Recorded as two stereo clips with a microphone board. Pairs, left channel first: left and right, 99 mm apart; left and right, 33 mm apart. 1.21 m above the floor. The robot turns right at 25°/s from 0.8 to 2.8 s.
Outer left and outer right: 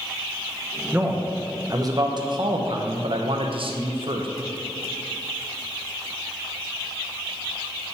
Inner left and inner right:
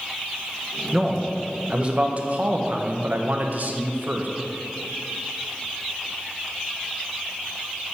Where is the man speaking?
165° right, 0.9 m; by 4.3 s 115° right, 0.9 m.